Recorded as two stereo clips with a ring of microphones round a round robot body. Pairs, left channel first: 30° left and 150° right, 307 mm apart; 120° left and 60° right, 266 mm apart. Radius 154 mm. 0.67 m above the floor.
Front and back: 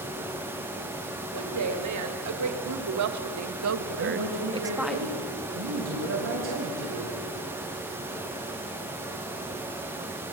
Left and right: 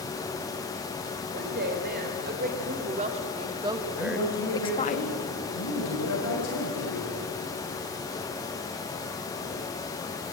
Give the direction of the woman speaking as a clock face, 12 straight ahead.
4 o'clock.